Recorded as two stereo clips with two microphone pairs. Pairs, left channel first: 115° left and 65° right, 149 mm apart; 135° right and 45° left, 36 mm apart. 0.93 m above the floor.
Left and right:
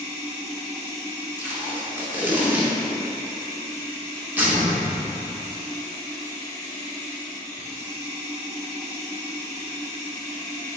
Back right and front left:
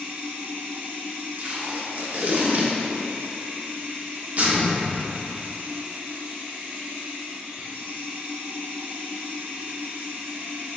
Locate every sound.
0.0 s running water: straight ahead, 1.9 m
1.4 s tape being pulled: 10° left, 0.7 m
4.4 s a door slam: 95° right, 1.2 m